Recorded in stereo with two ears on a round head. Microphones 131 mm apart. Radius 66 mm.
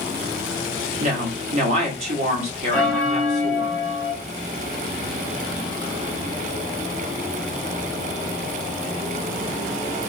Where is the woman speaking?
50° right (ahead or behind), 1.4 m.